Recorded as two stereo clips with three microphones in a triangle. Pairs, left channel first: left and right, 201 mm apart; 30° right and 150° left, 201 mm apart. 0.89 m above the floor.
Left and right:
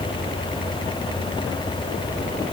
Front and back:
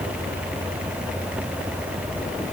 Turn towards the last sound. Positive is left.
No sound to turn to.